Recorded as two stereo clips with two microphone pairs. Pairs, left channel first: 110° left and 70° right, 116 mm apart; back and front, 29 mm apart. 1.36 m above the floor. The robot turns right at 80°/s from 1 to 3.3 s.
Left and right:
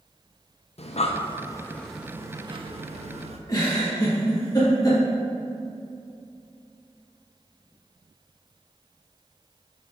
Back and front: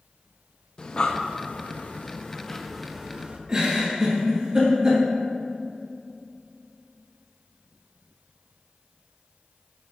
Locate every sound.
0.8 s breathing: 125° left, 0.5 m; by 3.4 s 50° right, 0.5 m
3.5 s a giggle: 55° left, 1.8 m